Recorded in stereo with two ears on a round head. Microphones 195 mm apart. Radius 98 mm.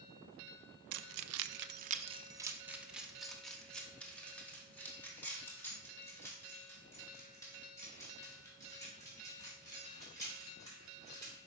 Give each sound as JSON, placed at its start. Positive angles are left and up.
{"t": 0.9, "sound": "keys jangling", "side_deg": -75, "distance_m": 0.5}